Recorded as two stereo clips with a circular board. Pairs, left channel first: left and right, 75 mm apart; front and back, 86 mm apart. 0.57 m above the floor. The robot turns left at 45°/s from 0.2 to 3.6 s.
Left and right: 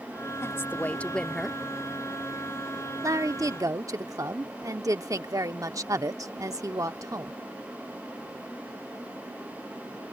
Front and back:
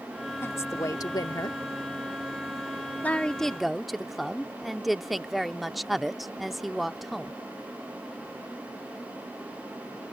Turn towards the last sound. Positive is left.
turn(degrees=-95)